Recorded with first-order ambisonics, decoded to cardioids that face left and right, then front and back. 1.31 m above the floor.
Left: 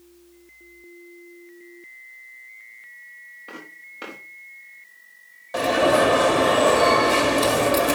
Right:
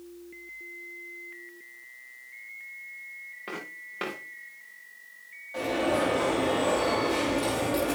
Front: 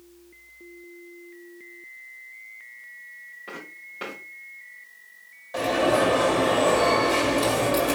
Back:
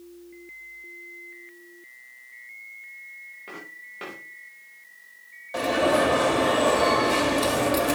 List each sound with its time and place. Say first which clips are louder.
3.5 s footsteps: right 3 dB, front 3 dB; 85° right, 5.5 m
5.5 s an alarm: left 9 dB, even; 95° left, 1.4 m